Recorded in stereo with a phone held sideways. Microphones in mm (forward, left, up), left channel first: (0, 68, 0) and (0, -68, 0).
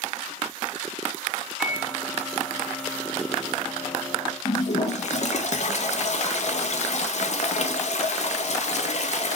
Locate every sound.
1.6 s a microwave: centre (ahead or behind), 1.8 m
4.5 s a toilet flushing: 55° left (ahead or behind), 0.5 m